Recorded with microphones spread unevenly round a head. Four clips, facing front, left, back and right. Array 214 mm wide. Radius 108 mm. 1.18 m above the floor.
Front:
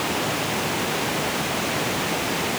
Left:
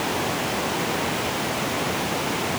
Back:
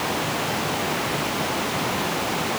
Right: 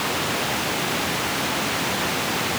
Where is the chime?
I don't hear a chime.